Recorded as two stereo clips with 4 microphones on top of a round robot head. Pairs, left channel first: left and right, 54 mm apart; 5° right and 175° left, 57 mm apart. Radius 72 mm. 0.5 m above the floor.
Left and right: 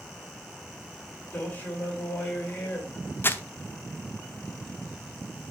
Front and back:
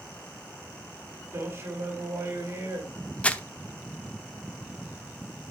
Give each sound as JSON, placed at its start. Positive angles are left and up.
{"t": 1.3, "sound": "a man speaking", "azimuth_deg": 140, "distance_m": 2.5}
{"t": 3.2, "sound": "crumpling", "azimuth_deg": 55, "distance_m": 1.0}